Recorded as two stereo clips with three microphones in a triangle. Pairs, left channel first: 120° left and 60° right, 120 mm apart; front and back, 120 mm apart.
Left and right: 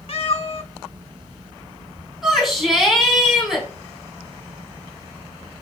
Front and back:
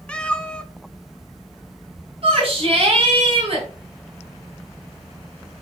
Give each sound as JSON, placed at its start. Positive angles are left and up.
{"t": 0.1, "sound": "a cat meowing", "azimuth_deg": 80, "distance_m": 0.7}
{"t": 2.2, "sound": "a shout", "azimuth_deg": -145, "distance_m": 3.5}